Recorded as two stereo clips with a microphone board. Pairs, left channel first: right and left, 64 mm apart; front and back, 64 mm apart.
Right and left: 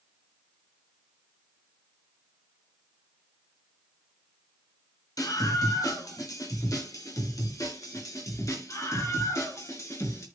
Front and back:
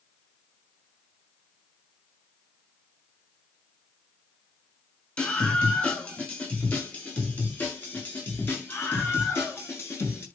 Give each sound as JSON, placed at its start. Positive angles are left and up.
{"t": 5.2, "sound": "a scream", "azimuth_deg": -70, "distance_m": 7.0}